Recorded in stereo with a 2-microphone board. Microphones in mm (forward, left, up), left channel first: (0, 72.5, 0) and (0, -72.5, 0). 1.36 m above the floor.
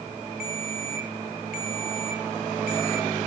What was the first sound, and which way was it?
A ringtone, 75° left (ahead or behind).